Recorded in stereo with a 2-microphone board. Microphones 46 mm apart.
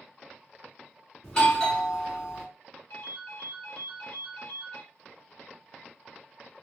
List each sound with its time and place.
1.2 s a doorbell: 20° left (ahead or behind), 1.5 m
2.9 s a ringtone: 55° left (ahead or behind), 1.8 m